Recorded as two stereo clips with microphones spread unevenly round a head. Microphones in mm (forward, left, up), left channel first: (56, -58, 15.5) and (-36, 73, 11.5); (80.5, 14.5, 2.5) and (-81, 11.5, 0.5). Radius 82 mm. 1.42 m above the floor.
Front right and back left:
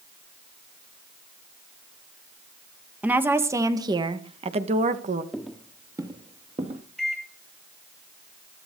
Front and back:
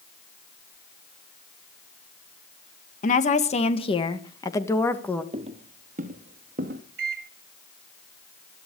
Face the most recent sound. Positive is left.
turn(degrees=-145)